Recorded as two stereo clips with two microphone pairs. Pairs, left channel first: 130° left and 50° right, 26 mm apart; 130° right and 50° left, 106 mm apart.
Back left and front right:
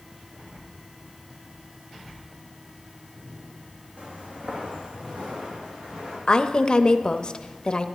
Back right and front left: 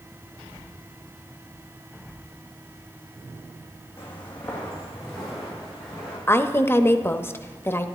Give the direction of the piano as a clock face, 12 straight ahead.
No piano in this recording.